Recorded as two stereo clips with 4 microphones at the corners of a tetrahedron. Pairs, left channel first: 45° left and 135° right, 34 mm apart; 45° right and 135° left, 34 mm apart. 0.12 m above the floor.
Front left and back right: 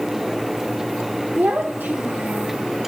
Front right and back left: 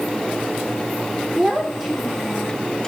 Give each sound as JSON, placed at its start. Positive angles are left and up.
{"t": 1.4, "sound": "a child speaking", "azimuth_deg": -145, "distance_m": 4.0}